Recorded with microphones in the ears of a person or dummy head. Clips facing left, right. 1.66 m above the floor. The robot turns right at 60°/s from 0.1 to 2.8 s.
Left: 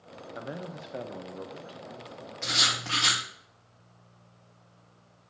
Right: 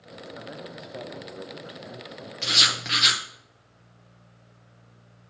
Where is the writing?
50° right (ahead or behind), 1.1 m; by 3.2 s 25° right (ahead or behind), 1.1 m.